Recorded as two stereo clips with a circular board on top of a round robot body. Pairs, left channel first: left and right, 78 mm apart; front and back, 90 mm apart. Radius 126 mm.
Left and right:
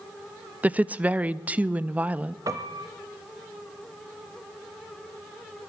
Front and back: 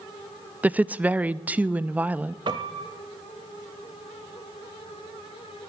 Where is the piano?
145° right, 0.5 m.